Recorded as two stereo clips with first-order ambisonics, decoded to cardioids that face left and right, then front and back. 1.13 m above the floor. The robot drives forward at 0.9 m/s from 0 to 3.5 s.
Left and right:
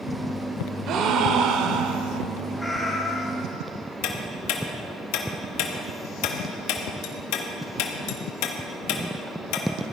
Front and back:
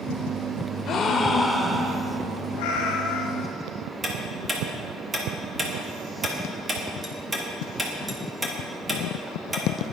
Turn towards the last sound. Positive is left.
turn(degrees=100)